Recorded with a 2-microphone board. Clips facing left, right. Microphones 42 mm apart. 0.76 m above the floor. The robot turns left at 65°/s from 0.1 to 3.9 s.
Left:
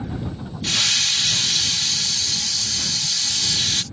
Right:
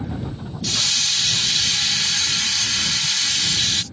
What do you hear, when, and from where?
0.6 s a hiss: 40° left; by 3.8 s 170° right